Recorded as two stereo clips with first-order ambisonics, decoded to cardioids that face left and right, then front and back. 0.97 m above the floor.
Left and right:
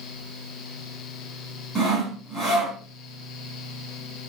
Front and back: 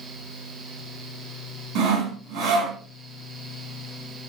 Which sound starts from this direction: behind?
Sawing, at 1.8 s.